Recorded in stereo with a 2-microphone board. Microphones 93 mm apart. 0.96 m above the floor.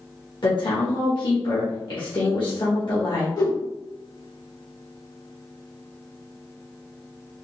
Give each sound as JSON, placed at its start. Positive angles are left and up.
{"t": 0.4, "sound": "a woman speaking", "side_deg": 55, "distance_m": 1.2}
{"t": 3.4, "sound": "a whoosh", "side_deg": 45, "distance_m": 1.4}